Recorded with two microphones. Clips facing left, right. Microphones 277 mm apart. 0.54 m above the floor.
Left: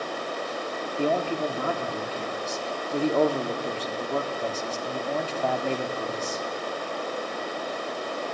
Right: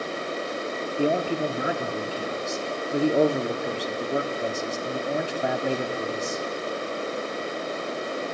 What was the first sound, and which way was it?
A man speaking, 15° right (ahead or behind).